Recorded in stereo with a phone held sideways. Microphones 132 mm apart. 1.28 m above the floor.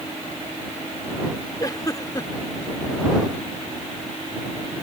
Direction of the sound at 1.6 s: 30° left (ahead or behind).